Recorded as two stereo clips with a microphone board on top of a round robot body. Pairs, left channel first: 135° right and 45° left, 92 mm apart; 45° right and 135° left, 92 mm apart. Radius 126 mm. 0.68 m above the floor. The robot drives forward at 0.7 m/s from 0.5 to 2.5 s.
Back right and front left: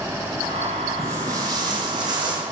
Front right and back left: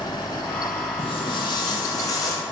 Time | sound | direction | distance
1.0 | footsteps | 15° right | 1.1 m